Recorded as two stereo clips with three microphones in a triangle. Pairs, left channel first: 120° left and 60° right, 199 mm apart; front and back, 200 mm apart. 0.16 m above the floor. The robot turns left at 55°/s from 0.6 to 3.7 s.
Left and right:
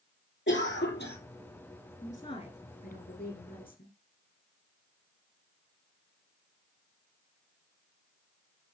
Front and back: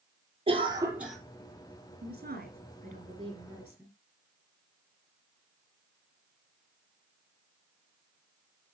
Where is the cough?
120° left, 4 m; by 1.2 s 90° left, 4 m.